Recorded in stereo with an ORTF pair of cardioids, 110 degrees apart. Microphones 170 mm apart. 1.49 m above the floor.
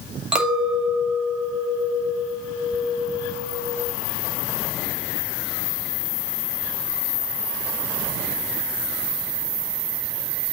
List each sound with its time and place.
0.3 s a clink: 5° right, 2.5 m